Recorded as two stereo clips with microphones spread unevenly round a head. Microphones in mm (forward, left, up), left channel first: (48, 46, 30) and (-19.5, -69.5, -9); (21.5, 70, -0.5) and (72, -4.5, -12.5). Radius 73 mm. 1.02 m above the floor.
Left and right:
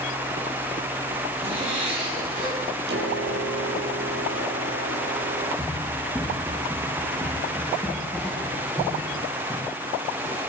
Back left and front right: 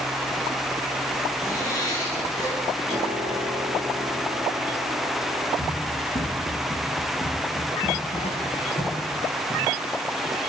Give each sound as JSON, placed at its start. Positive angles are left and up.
{"t": 1.4, "sound": "a zipper", "azimuth_deg": -170, "distance_m": 8.0}
{"t": 2.9, "sound": "a piano", "azimuth_deg": -125, "distance_m": 5.0}
{"t": 5.6, "sound": "running footsteps", "azimuth_deg": 140, "distance_m": 9.0}